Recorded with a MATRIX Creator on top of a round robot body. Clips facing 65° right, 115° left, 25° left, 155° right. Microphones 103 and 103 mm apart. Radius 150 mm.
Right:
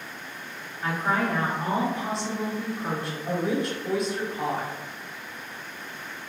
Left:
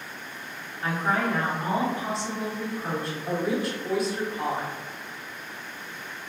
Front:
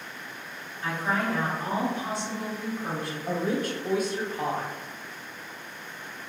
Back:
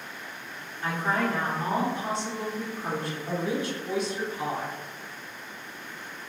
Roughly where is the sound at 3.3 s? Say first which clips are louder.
Right 1 dB, front 2 dB; ahead left.